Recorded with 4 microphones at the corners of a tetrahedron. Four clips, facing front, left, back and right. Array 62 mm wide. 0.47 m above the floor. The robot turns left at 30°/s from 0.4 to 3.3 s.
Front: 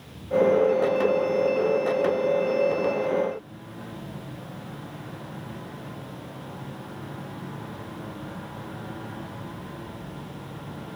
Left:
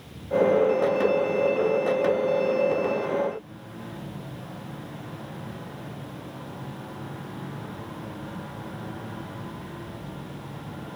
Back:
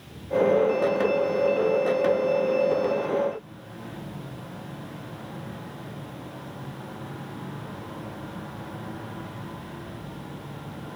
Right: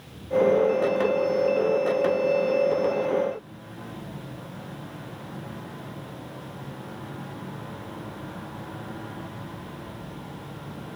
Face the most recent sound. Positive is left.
No sound to turn to.